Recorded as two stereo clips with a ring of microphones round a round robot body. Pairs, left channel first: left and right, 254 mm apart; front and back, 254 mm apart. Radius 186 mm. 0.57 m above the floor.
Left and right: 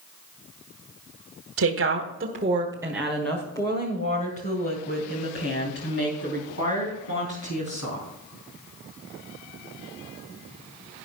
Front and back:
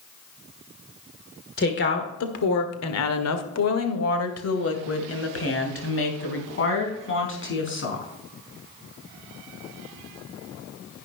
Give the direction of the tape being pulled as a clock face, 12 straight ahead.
No tape being pulled in this recording.